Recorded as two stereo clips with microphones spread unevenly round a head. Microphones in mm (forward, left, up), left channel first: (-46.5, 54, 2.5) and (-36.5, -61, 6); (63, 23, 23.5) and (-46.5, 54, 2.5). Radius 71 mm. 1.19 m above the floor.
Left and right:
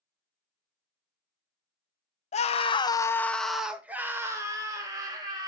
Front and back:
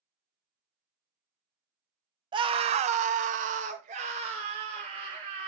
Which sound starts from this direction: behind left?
A scream, at 2.3 s.